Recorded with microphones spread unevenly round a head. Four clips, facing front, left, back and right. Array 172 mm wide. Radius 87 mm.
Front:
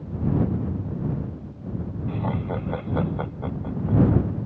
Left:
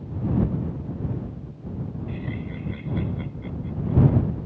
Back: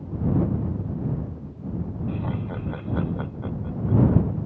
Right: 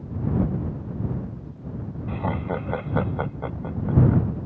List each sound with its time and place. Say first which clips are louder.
2.1 s laughter: right 6 dB, front 5 dB; 65° right